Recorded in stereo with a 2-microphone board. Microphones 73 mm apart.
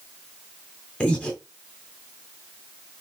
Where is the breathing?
15° left (ahead or behind), 1.9 m.